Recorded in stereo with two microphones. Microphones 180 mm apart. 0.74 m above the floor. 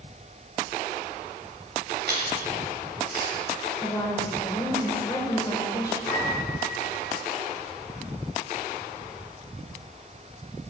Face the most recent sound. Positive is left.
turn(degrees=70)  # may be behind; listen again after turning